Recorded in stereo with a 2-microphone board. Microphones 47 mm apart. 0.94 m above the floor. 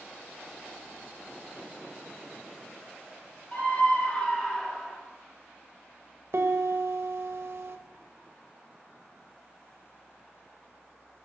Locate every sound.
3.5 s a scream: 40° left (ahead or behind), 1.4 m; by 5.0 s 10° left (ahead or behind), 1.6 m
6.3 s a piano: 60° right (ahead or behind), 0.9 m